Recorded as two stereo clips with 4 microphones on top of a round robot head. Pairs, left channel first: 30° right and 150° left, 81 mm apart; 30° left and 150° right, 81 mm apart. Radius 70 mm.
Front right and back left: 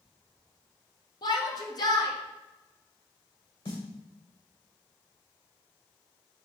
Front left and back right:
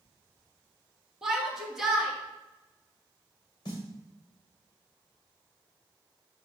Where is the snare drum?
5° right, 2 m.